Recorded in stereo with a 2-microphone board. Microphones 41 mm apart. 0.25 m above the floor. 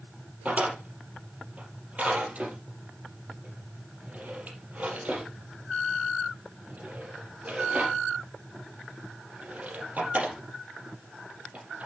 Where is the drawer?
40° right (ahead or behind), 4.5 m.